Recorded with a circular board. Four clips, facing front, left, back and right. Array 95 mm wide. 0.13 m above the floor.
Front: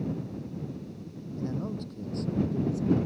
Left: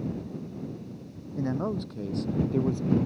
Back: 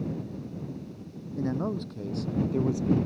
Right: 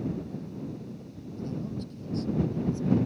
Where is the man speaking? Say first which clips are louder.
Left 6 dB, back 4 dB; 115° left; by 3.0 s 135° left.